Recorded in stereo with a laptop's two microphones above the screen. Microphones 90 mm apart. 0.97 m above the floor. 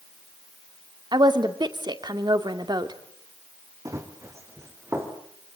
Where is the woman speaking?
50° right (ahead or behind), 2.5 m.